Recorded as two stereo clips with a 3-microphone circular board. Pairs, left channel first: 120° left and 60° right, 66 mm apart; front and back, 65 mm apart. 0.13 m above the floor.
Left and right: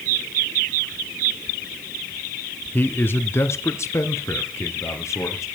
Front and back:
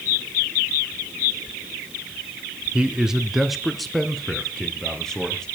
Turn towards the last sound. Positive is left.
turn(degrees=80)